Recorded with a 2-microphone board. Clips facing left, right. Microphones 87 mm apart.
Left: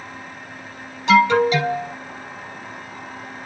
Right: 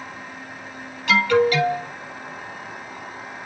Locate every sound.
1.1 s an alarm: 20° left (ahead or behind), 5 m